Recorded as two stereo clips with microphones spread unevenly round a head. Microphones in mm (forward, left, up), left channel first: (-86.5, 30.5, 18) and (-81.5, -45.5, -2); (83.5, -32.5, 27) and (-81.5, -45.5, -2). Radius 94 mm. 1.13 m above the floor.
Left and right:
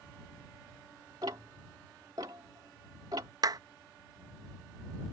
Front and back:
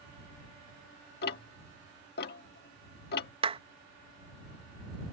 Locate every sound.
1.2 s ticking: 20° right
3.4 s a clap: 120° right